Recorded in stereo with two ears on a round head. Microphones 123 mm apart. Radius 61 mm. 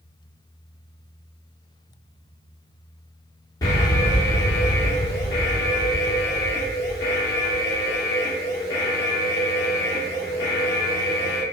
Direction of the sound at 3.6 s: 30° left (ahead or behind).